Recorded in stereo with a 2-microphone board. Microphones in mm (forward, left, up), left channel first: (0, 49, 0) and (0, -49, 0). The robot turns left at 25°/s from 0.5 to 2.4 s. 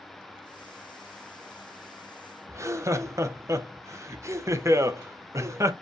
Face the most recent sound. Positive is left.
turn(degrees=-30)  # may be behind; listen again after turning